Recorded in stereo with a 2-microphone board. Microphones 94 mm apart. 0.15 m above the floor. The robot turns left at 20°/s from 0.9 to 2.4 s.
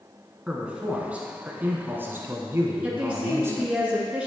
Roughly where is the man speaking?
Ahead right.